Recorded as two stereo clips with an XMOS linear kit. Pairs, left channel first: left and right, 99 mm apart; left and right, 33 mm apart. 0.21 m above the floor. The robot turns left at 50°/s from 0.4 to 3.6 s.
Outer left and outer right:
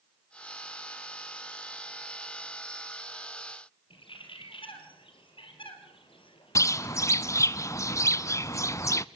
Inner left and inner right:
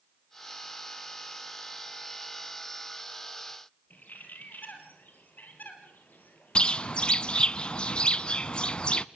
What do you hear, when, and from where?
3.9 s a bird: 65° left (ahead or behind), 4 m
6.5 s a bird: 35° left (ahead or behind), 0.5 m